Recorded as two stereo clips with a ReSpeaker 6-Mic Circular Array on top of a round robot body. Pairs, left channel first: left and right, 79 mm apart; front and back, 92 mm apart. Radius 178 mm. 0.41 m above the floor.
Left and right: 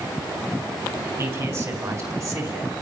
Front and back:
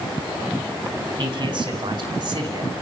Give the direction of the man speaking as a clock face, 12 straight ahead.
5 o'clock.